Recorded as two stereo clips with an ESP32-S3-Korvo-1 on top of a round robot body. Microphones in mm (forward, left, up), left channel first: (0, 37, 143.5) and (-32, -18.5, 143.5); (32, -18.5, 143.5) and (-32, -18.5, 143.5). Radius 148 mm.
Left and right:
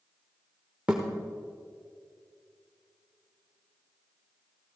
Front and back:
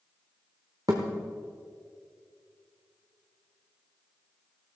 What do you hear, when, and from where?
0.9 s a thud: 175° left, 0.7 m